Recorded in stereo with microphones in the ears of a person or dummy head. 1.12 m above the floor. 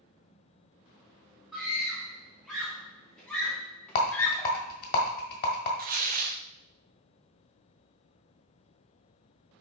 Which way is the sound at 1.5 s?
Centre (ahead or behind).